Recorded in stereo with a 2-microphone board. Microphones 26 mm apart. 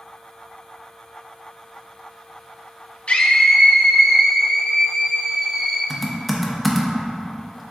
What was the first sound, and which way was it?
A scream, 50° left (ahead or behind).